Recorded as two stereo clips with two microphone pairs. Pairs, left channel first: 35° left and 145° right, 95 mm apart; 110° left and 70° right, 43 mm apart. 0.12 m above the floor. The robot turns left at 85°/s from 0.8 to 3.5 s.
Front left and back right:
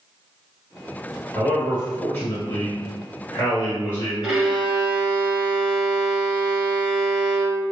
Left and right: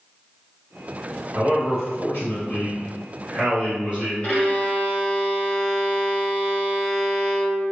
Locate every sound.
1.4 s a man speaking: 170° left, 1.5 m; by 4.1 s 15° right, 1.5 m
4.2 s a violin: 135° left, 1.7 m